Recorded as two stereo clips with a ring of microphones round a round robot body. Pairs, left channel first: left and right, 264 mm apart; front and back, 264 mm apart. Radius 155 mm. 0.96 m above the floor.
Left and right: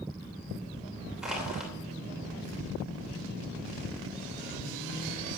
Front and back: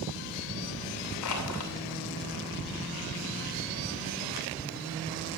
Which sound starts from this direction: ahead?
Crushing, at 1.2 s.